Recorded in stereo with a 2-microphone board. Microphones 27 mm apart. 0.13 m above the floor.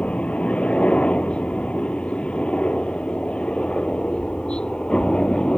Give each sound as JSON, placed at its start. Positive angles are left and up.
{"t": 0.0, "sound": "a helicopter", "side_deg": 50}